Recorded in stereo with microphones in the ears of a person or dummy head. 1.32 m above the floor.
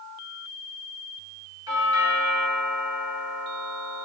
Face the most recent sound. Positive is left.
turn(degrees=-20)  # may be behind; listen again after turning